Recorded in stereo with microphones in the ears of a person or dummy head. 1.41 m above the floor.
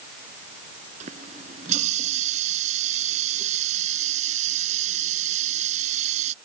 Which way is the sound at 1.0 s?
40° right (ahead or behind).